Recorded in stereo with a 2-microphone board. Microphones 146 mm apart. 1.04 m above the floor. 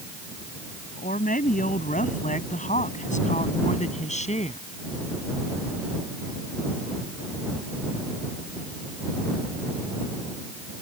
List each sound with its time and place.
1.0 s a woman speaking: 65° left (ahead or behind); by 4.7 s 45° left (ahead or behind)